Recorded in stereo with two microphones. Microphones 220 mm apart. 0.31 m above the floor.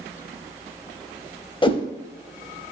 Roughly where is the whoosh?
Left.